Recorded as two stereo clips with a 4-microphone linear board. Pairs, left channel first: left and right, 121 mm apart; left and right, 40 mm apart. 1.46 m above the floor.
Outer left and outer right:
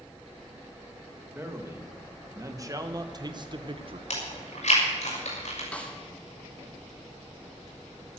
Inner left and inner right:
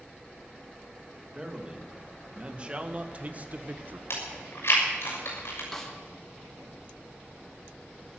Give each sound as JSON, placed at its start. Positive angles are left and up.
{"t": 1.3, "sound": "a man speaking", "side_deg": -20, "distance_m": 2.0}
{"t": 4.1, "sound": "chewing", "side_deg": 65, "distance_m": 6.5}
{"t": 5.7, "sound": "a snare drum", "side_deg": 10, "distance_m": 2.0}